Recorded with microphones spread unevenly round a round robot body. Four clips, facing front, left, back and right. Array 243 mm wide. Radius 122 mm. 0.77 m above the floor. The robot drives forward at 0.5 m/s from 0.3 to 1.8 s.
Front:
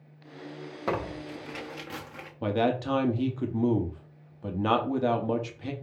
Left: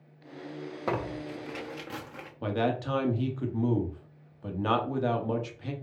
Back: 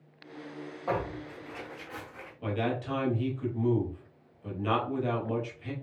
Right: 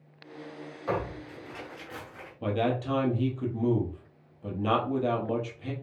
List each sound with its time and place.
0.9 s tearing paper: 35° left, 1.4 m; by 2.3 s 50° left, 1.1 m
2.4 s a man speaking: 10° right, 1.2 m